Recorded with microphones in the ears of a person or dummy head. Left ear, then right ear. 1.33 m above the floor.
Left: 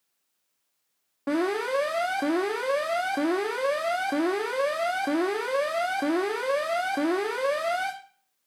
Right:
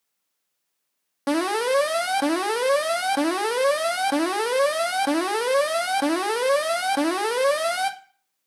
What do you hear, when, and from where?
1.3 s an alarm: 80° right, 1.7 m